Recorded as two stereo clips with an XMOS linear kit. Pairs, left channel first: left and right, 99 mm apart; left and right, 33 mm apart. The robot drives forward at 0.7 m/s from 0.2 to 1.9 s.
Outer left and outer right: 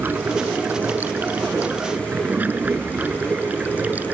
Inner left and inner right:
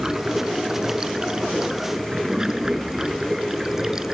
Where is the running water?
20° right (ahead or behind); by 4.1 s 15° right (ahead or behind).